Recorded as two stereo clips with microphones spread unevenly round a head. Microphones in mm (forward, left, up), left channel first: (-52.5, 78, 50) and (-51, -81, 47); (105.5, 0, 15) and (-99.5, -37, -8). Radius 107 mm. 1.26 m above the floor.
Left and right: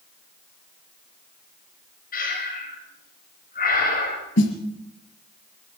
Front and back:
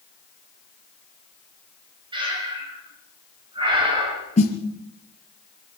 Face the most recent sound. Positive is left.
turn(degrees=70)